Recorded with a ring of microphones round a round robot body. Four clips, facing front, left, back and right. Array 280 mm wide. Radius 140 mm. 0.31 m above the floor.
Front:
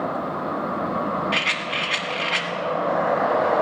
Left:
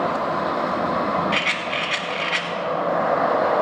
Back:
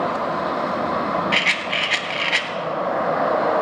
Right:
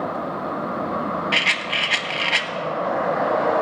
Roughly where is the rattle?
Behind right.